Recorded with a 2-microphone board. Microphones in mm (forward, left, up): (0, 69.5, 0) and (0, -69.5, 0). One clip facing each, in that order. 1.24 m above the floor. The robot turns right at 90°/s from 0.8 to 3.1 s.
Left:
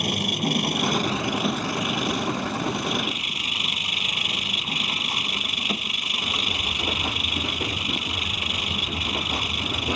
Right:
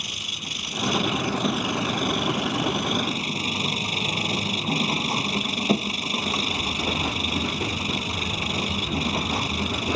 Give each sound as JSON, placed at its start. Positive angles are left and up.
{"t": 0.0, "sound": "an engine running", "azimuth_deg": 120}